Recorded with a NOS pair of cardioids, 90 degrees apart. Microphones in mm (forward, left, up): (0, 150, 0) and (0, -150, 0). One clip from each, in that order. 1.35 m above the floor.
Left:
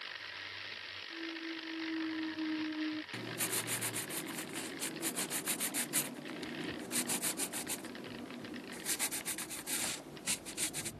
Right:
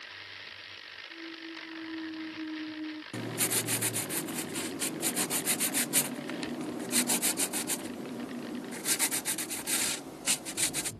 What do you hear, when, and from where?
1.1 s a clunk: 10° left
3.1 s writing: 30° right